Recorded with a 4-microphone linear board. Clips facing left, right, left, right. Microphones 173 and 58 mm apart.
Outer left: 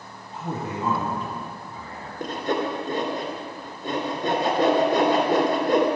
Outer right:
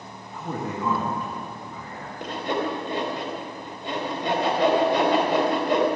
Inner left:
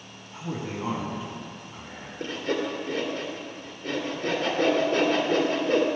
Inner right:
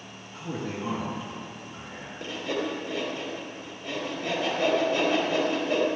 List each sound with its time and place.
0.3 s a man speaking: 25° left (ahead or behind), 2 m
2.2 s sawing: 50° left (ahead or behind), 2.5 m